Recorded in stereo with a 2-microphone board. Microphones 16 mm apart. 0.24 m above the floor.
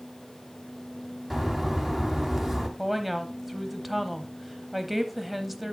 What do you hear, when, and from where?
1.3 s a bird: 30° right (ahead or behind), 1.4 m
2.8 s a woman speaking: 10° right (ahead or behind), 1.0 m